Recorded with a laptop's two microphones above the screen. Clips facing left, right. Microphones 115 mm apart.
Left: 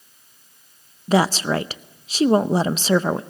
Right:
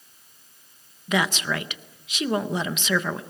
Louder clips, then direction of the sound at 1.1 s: Left 6 dB; 35° left (ahead or behind).